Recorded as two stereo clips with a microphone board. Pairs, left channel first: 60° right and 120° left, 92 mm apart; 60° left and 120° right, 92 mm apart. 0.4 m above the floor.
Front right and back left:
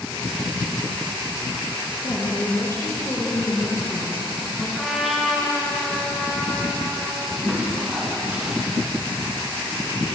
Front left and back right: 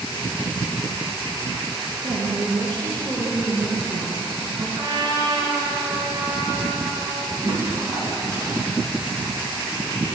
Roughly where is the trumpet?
Behind right.